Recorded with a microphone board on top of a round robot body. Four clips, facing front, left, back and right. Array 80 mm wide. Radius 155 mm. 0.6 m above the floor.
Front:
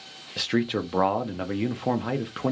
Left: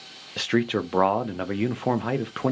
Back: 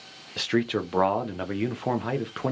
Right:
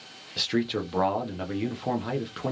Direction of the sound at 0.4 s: 95° left.